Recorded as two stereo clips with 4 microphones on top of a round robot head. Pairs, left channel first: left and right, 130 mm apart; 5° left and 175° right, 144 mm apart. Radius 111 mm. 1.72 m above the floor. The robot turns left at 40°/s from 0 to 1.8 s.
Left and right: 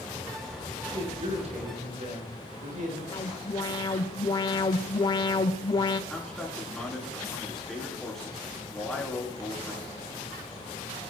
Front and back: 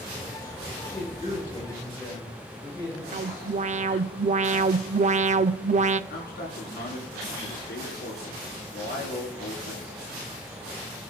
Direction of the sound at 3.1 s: 150° left.